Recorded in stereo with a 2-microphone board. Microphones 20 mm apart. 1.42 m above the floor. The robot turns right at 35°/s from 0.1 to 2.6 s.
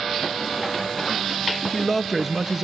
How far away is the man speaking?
About 0.6 m.